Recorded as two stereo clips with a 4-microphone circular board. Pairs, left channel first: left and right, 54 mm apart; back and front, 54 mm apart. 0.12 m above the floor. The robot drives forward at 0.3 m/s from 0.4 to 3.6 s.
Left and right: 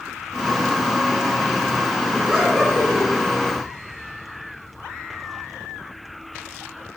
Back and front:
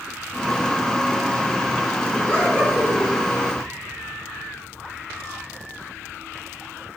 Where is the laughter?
170° right, 1.6 m.